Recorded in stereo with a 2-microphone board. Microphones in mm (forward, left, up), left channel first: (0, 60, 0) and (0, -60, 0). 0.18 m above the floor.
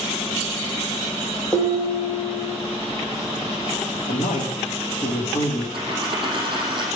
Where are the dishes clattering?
15° left (ahead or behind), 3.5 m.